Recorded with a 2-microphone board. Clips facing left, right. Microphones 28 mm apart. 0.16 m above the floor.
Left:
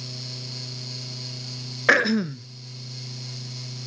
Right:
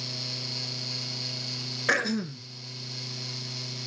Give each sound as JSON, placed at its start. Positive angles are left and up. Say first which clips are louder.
{"t": 1.9, "sound": "throat clearing", "louder": "left 8 dB", "side_deg": 30, "distance_m": 0.6}